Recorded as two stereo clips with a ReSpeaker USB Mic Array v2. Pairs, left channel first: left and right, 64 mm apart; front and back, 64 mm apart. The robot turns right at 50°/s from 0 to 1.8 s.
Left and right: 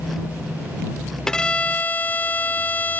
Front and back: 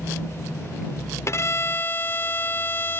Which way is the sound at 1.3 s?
10° left.